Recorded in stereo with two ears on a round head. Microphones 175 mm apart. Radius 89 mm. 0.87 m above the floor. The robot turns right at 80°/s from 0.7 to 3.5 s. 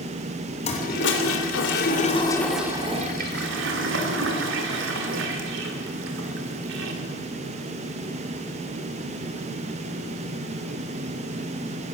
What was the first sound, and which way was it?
A toilet flushing, 35° left.